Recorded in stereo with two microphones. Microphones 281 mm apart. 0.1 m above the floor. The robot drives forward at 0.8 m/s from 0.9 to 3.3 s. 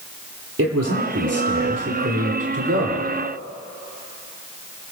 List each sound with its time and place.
0.6 s a man speaking: 65° right (ahead or behind), 3.5 m; by 3.1 s 50° right (ahead or behind), 4 m